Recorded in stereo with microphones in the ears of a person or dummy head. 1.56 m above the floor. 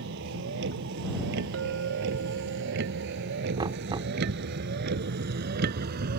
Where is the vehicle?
70° right (ahead or behind); by 6.2 s 55° right (ahead or behind).